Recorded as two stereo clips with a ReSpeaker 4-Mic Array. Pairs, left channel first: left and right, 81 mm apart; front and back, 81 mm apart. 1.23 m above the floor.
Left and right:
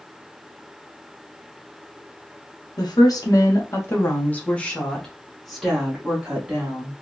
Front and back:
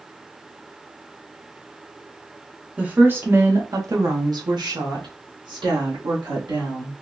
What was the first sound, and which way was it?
A woman speaking, 110° left.